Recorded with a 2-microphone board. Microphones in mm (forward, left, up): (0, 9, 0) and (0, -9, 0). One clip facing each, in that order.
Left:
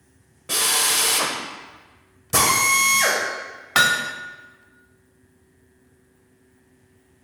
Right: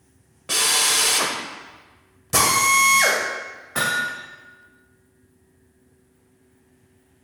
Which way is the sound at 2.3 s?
10° right (ahead or behind).